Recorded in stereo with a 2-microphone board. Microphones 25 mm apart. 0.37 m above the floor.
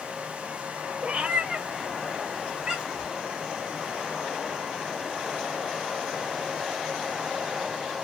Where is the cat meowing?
55° right (ahead or behind), 0.6 m; by 3.1 s 35° right (ahead or behind), 1.3 m.